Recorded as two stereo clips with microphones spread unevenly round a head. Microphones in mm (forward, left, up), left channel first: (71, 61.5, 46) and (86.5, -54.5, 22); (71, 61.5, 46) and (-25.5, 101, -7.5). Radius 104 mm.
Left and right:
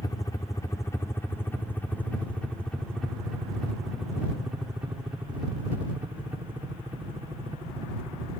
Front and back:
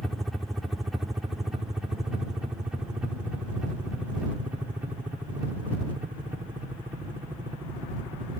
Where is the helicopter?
140° left; by 8.4 s 145° right.